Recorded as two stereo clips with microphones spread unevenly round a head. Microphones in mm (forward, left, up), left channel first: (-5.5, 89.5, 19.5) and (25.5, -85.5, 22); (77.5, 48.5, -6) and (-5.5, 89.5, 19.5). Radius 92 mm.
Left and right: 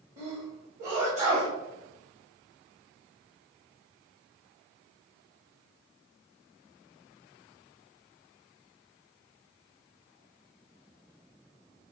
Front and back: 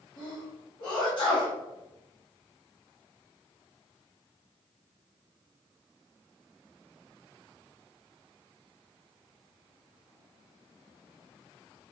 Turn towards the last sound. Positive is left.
turn(degrees=-30)